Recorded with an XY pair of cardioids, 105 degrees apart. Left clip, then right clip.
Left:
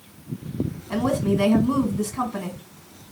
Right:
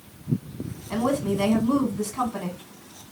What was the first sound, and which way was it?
A woman speaking, 10° left.